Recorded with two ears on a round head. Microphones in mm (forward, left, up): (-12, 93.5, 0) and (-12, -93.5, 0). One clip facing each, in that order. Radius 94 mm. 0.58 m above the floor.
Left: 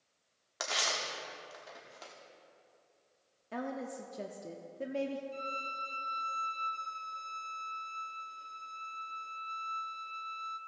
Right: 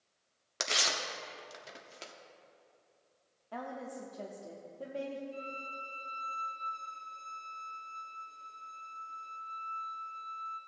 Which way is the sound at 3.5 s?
25° left (ahead or behind).